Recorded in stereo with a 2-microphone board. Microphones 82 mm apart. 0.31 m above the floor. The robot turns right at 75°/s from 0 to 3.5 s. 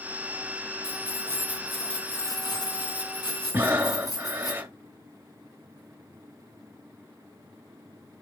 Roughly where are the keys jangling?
Ahead right.